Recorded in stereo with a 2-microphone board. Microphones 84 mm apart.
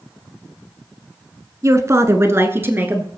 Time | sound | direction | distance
1.6 | a woman speaking | 40° right (ahead or behind) | 1.4 m